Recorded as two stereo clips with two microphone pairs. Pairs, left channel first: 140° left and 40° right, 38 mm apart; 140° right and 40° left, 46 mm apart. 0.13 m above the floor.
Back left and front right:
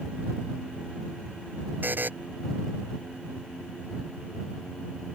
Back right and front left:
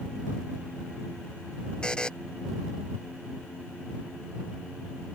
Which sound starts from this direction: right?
A buzzer, at 1.8 s.